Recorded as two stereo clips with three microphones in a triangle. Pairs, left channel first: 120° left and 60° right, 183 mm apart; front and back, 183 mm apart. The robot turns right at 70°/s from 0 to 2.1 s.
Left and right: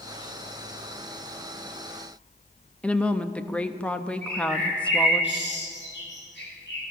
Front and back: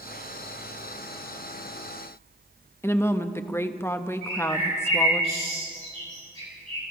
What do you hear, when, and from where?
2.8 s a woman speaking: 50° left, 0.6 m
4.2 s a bird: 125° left, 7 m